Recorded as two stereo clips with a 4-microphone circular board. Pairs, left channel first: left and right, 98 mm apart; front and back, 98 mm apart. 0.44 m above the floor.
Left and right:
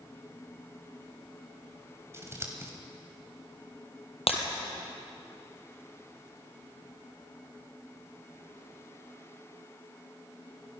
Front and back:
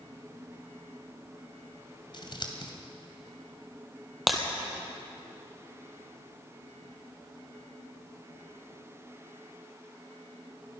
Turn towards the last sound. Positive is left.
turn(degrees=90)